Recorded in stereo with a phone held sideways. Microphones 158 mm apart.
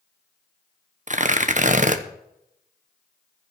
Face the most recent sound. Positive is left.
turn(degrees=-50)  # may be behind; listen again after turning